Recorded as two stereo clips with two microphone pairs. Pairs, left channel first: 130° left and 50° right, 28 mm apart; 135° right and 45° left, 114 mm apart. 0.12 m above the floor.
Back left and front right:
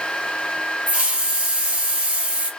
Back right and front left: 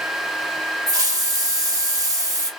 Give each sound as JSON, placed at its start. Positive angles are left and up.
{"t": 0.9, "sound": "a hiss", "azimuth_deg": -10, "distance_m": 1.8}